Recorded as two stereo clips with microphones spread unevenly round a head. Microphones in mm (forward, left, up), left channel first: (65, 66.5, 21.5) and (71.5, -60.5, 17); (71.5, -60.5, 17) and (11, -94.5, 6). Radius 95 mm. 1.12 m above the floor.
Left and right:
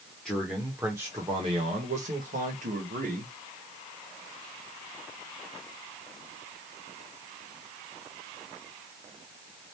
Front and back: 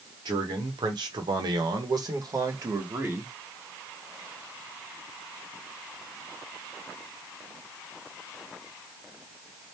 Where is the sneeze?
No sneeze in this recording.